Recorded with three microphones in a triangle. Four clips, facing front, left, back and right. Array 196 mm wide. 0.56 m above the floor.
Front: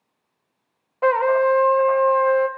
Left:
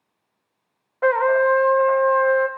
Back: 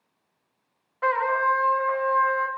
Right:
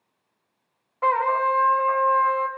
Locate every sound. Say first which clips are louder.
1.0 s a trumpet: left 4 dB, front 6 dB; 50° left, 1.5 m